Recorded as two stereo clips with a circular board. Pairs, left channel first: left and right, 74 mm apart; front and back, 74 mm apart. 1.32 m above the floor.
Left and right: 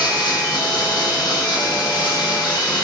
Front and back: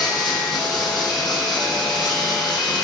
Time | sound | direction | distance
0.0 | running water | 90° left | 7 m